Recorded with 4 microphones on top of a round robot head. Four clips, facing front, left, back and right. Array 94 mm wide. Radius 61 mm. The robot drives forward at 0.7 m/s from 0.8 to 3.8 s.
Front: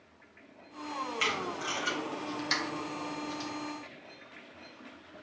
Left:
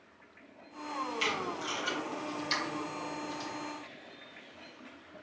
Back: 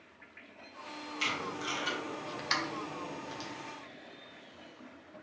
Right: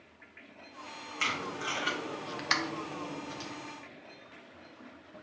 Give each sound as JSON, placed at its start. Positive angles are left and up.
{"t": 1.2, "sound": "tape being pulled", "azimuth_deg": -45, "distance_m": 1.2}